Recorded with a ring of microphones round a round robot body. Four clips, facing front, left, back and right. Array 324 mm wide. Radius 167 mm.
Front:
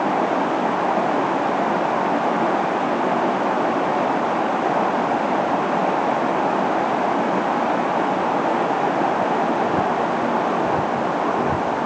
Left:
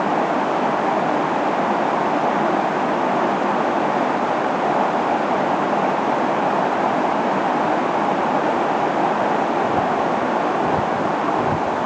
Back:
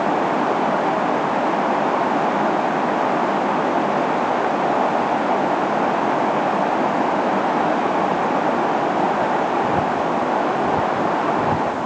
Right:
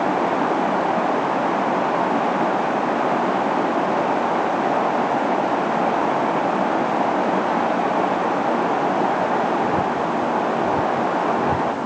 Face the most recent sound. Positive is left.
No sound to turn to.